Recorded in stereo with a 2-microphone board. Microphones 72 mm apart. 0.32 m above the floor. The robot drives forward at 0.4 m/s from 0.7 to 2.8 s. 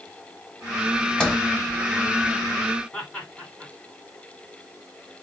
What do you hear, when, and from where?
1.2 s a sliding door: 15° left (ahead or behind), 0.9 m
2.9 s laughter: 10° left (ahead or behind), 2.5 m